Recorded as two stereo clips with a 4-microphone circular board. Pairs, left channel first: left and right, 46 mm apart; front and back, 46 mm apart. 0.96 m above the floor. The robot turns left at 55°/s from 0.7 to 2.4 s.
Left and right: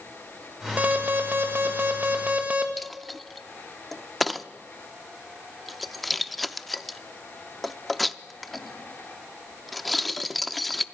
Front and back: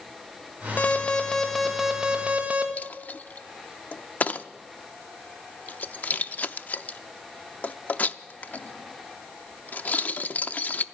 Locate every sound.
0.8 s an alarm: 45° right, 1.6 m; by 2.7 s 135° right, 1.6 m
2.8 s a dropped coin: 5° left, 0.5 m